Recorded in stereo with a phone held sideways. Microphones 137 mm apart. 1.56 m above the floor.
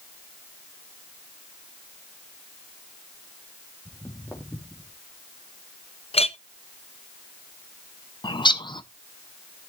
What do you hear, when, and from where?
3.9 s footsteps: 20° left (ahead or behind), 3 m; by 4.9 s centre (ahead or behind), 3.5 m
6.1 s a clink: 45° left (ahead or behind), 0.6 m
8.2 s a bird: 35° left (ahead or behind), 0.6 m